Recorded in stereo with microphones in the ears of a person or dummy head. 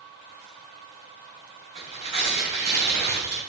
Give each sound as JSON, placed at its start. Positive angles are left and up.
{"t": 1.8, "sound": "tearing paper", "side_deg": -30, "distance_m": 4.0}